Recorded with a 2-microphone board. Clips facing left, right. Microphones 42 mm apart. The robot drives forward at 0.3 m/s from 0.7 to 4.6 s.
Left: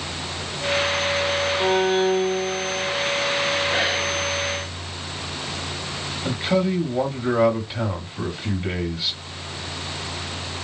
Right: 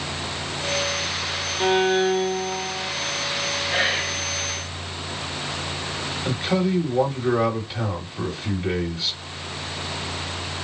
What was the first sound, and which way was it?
A violin, 15° right (ahead or behind).